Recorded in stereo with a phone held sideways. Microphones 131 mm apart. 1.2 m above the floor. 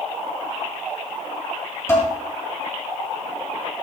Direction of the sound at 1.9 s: 20° left (ahead or behind).